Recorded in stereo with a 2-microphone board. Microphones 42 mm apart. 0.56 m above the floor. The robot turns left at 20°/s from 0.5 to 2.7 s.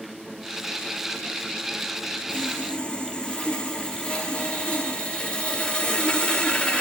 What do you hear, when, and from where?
2.3 s sawing: 30° left (ahead or behind), 1.1 m; by 6.8 s 25° left (ahead or behind), 1.1 m